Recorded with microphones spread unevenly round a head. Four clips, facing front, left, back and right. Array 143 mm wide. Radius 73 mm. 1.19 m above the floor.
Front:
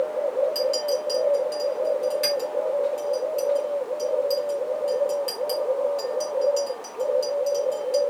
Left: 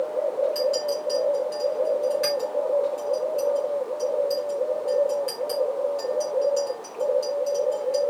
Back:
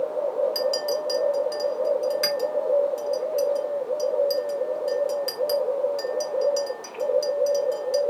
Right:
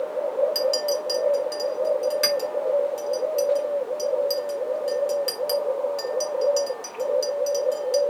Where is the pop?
No pop in this recording.